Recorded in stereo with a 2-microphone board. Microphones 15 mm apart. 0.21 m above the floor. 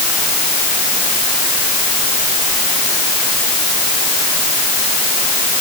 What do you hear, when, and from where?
Only background noise.